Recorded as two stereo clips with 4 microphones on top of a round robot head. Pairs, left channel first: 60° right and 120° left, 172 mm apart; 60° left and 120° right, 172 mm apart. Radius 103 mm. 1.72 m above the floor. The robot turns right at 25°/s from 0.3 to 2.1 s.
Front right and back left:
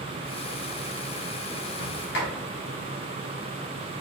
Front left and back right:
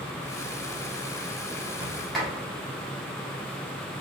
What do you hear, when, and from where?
1.8 s a sliding door: 40° right, 1.4 m; by 2.3 s 30° right, 1.4 m